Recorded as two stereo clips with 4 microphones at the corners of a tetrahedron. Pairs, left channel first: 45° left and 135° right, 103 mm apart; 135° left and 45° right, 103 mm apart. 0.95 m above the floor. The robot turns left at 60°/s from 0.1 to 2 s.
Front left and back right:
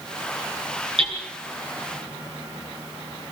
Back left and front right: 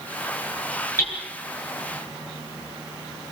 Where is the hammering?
155° right, 9.5 m; by 1.2 s 170° right, 9.5 m.